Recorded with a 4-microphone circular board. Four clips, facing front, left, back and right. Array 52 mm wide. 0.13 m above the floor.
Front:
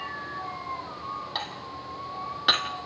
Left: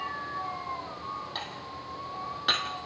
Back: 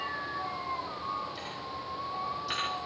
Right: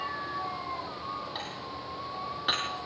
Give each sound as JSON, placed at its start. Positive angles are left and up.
{"t": 1.4, "sound": "dishes clattering", "azimuth_deg": 5, "distance_m": 3.0}